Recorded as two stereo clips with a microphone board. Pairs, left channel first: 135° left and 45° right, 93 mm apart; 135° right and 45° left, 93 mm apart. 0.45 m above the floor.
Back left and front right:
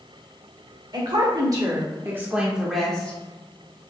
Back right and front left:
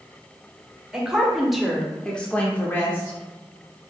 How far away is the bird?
I don't hear a bird.